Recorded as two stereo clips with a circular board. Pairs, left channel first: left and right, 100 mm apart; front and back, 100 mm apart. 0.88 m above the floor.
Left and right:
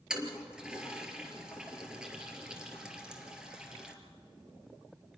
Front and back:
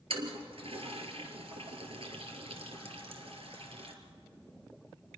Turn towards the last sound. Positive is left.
turn(degrees=-175)